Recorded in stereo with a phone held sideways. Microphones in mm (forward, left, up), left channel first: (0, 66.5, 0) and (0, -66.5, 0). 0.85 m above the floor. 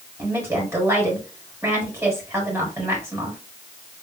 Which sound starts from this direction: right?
A woman speaking, at 0.2 s.